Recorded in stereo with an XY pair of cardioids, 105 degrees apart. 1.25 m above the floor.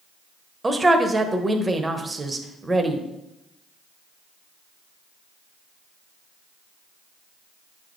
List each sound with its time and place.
0.6 s a man speaking: 15° right, 0.9 m